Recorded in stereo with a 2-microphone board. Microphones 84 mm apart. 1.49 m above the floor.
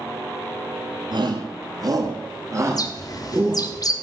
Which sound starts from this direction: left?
A bird, at 2.7 s.